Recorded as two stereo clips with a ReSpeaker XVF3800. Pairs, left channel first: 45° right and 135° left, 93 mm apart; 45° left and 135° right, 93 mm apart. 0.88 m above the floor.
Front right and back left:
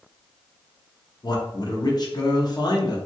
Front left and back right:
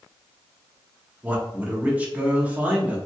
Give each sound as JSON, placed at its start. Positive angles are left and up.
{"t": 1.2, "sound": "a man speaking", "azimuth_deg": -65, "distance_m": 0.8}